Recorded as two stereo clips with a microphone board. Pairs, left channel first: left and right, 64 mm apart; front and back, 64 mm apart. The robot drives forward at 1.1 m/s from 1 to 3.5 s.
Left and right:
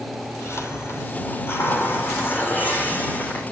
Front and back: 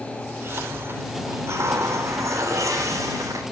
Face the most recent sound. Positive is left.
turn(degrees=155)